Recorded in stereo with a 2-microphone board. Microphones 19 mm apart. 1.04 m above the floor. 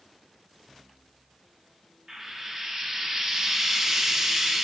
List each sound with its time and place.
2.1 s frying: 40° right (ahead or behind), 1.7 m